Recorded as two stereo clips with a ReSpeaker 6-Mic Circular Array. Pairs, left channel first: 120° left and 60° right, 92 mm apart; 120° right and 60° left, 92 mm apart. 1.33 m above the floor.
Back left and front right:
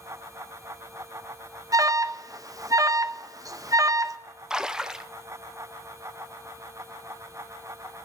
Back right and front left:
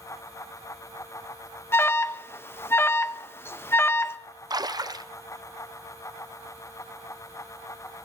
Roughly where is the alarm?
Right.